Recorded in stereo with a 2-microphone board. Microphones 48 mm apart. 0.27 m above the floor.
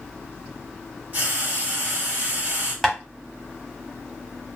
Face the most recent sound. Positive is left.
turn(degrees=5)  # may be behind; listen again after turning